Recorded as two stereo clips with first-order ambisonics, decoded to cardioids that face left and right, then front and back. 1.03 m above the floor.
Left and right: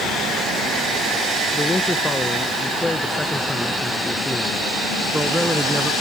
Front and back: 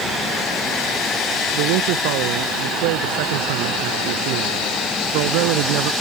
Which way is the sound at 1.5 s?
175° left.